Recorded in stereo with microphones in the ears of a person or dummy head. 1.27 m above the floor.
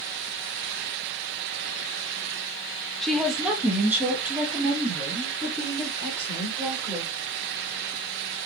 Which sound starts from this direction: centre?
A woman speaking, at 3.0 s.